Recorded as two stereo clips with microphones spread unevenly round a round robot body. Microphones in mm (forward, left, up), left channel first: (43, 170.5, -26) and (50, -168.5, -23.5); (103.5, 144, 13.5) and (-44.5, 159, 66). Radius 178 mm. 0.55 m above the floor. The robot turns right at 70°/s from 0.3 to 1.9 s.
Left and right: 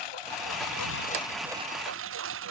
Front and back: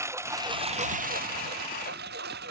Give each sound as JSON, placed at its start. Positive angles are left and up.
{"t": 0.0, "sound": "a lawn mower", "azimuth_deg": 105}